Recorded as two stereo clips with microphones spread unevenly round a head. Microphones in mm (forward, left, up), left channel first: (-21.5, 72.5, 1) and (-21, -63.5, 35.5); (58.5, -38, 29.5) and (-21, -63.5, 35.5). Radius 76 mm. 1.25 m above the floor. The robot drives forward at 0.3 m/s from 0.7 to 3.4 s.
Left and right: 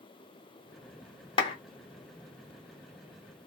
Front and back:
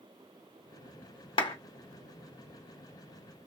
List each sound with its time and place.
1.4 s a clap: 40° left, 0.8 m; by 1.6 s 45° left, 0.8 m